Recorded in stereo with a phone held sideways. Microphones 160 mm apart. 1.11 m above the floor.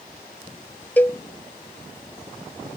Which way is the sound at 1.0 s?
10° left (ahead or behind).